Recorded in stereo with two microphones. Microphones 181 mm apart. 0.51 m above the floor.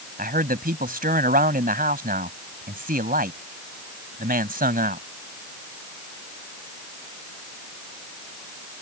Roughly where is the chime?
No chime in this recording.